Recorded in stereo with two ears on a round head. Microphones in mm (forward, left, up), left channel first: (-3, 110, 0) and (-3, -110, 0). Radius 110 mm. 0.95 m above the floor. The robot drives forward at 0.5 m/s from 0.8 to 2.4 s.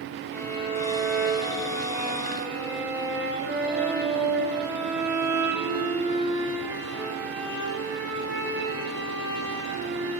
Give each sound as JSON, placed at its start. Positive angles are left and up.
{"t": 0.3, "sound": "a violin", "side_deg": 10, "distance_m": 2.0}